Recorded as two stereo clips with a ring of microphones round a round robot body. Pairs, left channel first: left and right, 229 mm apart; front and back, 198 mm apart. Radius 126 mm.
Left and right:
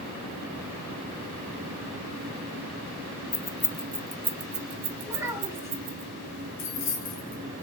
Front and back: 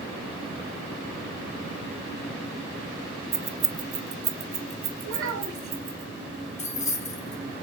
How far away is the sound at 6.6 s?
About 2.5 m.